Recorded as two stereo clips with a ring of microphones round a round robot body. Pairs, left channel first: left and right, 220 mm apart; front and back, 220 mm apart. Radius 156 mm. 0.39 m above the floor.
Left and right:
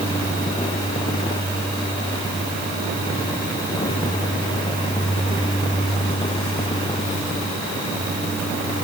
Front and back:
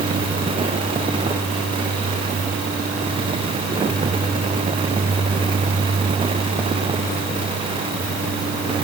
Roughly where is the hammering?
I don't hear hammering.